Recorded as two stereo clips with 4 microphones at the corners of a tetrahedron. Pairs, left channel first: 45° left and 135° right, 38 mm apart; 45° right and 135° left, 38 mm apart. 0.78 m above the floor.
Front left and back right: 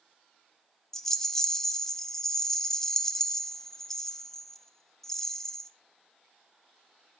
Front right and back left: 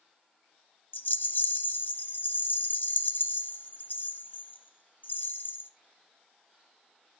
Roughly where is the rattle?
Ahead right.